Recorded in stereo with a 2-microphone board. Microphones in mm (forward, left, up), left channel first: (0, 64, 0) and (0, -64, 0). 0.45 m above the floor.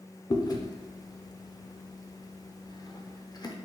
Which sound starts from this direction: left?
Chewing, at 0.3 s.